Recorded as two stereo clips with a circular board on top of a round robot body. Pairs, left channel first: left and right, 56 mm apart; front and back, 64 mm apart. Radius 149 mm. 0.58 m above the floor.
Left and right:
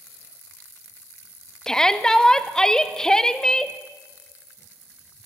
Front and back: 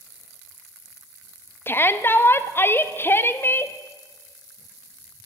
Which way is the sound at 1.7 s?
20° left.